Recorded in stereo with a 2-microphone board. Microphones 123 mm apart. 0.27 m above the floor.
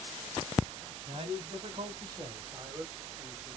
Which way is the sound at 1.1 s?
40° right (ahead or behind).